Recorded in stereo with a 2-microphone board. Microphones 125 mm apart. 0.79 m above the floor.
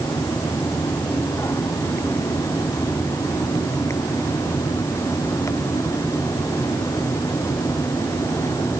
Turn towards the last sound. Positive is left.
No sound to turn to.